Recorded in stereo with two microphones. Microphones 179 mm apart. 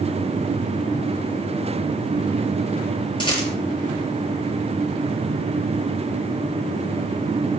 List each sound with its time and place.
3.2 s a rattle: 25° left (ahead or behind), 5.5 m